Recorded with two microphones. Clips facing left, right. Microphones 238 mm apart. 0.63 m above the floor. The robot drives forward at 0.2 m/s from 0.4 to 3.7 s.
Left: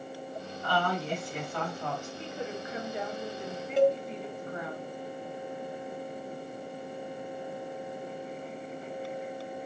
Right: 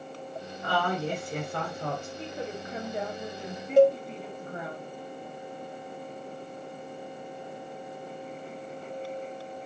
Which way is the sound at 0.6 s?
65° right (ahead or behind).